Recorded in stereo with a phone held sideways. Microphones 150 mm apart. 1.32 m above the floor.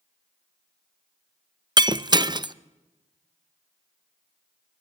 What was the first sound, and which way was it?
Breaking glass, 30° right (ahead or behind).